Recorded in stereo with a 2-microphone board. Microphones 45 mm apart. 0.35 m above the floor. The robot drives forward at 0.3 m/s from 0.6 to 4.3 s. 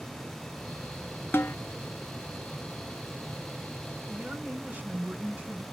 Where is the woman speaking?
35° right (ahead or behind), 2 m; by 5.7 s 30° right (ahead or behind), 2 m.